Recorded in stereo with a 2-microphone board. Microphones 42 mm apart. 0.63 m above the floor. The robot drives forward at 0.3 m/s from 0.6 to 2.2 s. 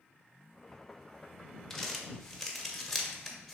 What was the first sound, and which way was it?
Crumpling, 10° left (ahead or behind).